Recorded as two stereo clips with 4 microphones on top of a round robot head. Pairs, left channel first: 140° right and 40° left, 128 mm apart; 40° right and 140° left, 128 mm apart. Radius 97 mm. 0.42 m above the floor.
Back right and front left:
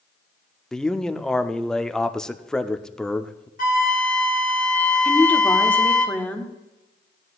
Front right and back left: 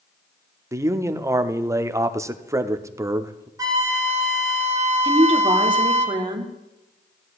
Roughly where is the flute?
Behind right.